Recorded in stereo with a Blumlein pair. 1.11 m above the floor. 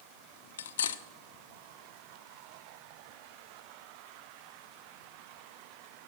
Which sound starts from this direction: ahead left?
Cutlery clinking, at 0.6 s.